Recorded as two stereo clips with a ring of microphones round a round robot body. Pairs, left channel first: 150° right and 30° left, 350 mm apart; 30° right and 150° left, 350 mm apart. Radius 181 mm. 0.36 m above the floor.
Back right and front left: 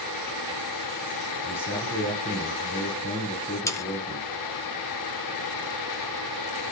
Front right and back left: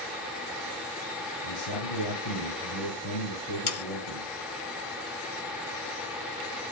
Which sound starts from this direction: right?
Sawing, at 3.7 s.